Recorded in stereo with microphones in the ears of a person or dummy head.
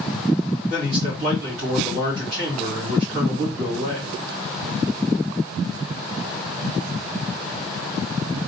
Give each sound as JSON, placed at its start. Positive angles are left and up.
{"t": 0.7, "sound": "a man speaking", "side_deg": -65, "distance_m": 3.5}